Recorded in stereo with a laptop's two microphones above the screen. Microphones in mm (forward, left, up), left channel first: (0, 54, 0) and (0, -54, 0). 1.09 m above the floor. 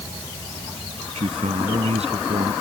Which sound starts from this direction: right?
A man speaking, at 1.1 s.